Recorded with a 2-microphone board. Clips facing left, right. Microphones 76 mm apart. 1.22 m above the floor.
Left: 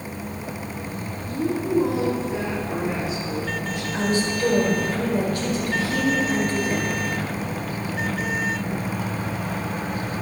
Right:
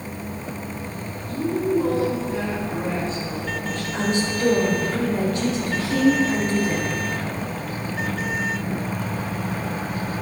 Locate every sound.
1.3 s a woman speaking: 15° left (ahead or behind), 2 m
3.9 s a woman speaking: 30° right (ahead or behind), 2.5 m